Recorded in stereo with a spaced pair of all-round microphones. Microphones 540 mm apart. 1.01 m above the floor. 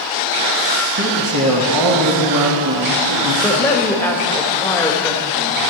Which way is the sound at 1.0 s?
35° right (ahead or behind).